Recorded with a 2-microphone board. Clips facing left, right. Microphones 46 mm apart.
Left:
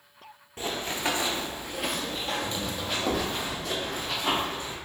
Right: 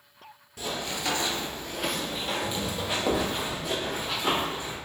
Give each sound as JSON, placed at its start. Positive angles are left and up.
{"t": 0.6, "sound": "running footsteps", "side_deg": 30, "distance_m": 0.6}